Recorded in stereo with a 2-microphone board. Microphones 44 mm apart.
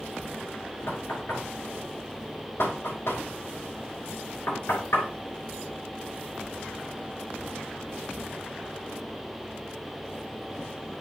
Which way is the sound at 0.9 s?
65° left (ahead or behind).